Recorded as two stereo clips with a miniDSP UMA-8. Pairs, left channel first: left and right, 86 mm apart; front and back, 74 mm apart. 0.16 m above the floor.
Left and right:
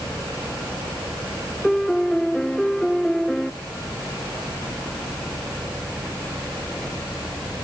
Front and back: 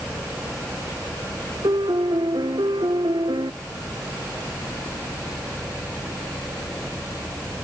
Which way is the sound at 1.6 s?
175° left.